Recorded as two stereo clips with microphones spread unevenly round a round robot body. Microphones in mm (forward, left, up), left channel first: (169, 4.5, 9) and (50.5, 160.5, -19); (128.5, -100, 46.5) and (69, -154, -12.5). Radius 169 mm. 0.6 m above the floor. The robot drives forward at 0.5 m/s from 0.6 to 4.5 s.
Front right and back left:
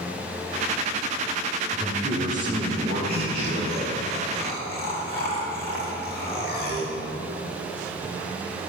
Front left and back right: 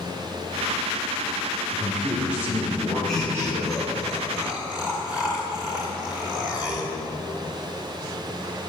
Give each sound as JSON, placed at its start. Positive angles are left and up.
{"t": 1.7, "sound": "a man speaking", "azimuth_deg": -165, "distance_m": 0.9}
{"t": 3.1, "sound": "laughter", "azimuth_deg": -100, "distance_m": 1.3}